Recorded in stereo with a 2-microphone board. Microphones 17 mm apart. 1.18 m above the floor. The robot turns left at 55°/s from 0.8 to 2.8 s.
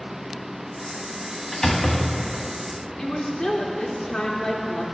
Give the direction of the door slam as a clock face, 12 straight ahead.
7 o'clock.